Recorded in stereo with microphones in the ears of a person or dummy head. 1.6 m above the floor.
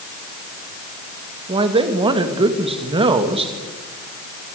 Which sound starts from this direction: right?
A man speaking, at 1.5 s.